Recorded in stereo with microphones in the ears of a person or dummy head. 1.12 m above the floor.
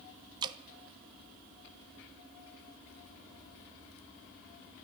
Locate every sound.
0.4 s dripping: 20° right (ahead or behind), 0.7 m